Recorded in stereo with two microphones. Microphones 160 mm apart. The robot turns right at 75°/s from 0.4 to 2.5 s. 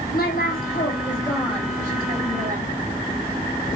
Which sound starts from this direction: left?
A woman speaking, at 0.1 s.